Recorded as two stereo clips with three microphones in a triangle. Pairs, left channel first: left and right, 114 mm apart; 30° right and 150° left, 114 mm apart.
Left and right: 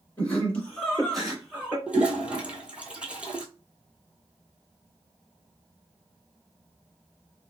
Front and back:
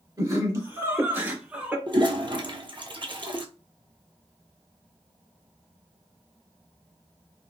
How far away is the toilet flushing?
About 0.7 m.